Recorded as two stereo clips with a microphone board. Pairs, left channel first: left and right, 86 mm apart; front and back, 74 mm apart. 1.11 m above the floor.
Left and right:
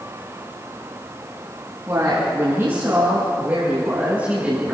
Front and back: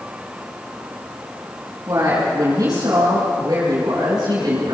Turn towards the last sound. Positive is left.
turn(degrees=-165)